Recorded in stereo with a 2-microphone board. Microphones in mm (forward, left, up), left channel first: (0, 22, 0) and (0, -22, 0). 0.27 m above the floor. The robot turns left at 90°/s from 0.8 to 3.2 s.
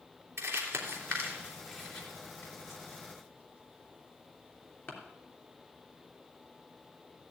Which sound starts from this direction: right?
Crumpling, at 0.4 s.